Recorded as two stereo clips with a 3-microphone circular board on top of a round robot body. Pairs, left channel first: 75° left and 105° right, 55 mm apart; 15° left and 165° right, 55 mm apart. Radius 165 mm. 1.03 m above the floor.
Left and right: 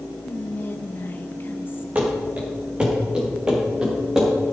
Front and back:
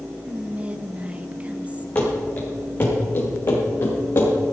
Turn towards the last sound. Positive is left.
turn(degrees=-25)